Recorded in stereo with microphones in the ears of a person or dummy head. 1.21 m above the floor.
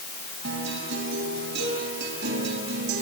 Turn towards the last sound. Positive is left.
turn(degrees=-60)  # may be behind; listen again after turning